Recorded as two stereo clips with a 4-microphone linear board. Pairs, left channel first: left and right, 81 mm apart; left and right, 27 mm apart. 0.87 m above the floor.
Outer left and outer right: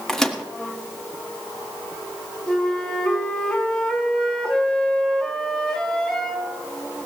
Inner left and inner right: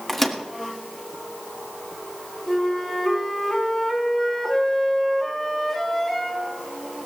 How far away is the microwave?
About 1.6 m.